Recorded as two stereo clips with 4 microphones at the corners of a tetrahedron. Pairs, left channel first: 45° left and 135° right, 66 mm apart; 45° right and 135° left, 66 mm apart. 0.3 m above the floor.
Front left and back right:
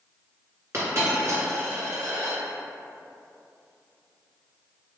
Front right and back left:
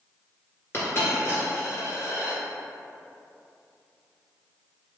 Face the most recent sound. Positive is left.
turn(degrees=-95)